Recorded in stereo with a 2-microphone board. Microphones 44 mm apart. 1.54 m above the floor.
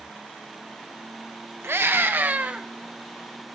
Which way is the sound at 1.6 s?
65° right (ahead or behind).